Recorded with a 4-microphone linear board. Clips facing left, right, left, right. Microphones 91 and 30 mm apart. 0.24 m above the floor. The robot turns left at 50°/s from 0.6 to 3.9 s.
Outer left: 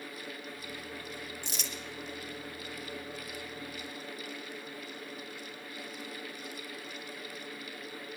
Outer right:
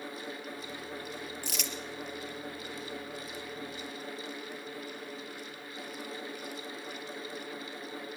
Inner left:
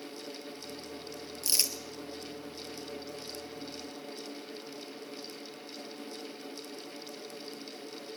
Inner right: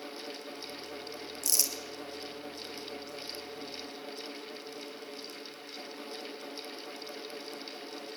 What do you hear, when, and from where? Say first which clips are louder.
1.4 s crumpling: outer right 3 dB, inner left 1 dB; 25° left (ahead or behind), 1.4 m; by 1.7 s 40° left (ahead or behind), 1.4 m